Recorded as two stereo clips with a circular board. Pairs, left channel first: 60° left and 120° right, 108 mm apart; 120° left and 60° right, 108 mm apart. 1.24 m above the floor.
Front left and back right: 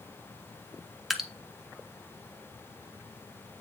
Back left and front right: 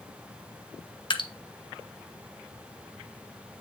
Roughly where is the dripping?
Behind left.